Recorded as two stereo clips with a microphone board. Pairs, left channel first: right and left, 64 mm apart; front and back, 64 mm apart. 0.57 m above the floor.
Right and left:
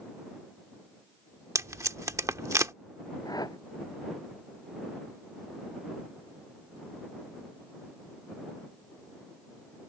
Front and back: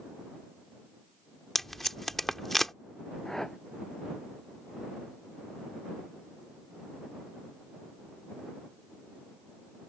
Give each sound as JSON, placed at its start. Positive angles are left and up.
{"t": 1.6, "sound": "tape being pulled", "azimuth_deg": 85}
{"t": 3.2, "sound": "a whoosh", "azimuth_deg": -85}